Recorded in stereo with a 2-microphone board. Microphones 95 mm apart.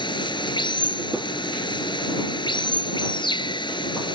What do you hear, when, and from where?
0.0 s running water: 55° left (ahead or behind)